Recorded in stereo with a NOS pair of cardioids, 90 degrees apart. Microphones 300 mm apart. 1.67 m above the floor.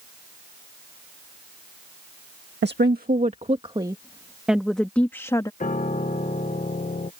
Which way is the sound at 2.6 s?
35° right.